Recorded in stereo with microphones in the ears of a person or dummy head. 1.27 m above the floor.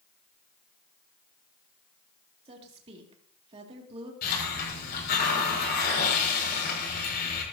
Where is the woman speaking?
35° right (ahead or behind), 2.5 m.